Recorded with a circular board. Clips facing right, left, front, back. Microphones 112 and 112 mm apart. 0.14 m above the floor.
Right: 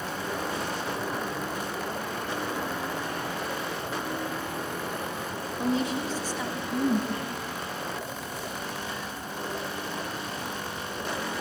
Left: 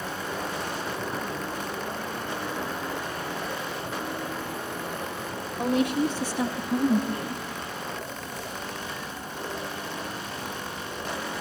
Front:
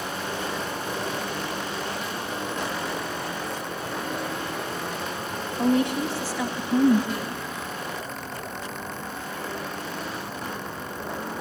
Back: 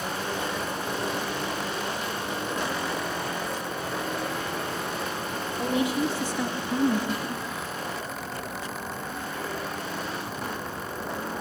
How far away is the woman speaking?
About 3.5 m.